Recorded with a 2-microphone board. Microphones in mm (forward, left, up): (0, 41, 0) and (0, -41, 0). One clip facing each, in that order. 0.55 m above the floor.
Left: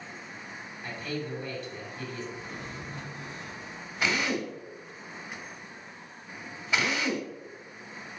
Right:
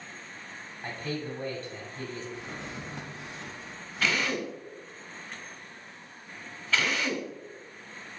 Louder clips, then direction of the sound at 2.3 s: Right 1 dB; 80° right.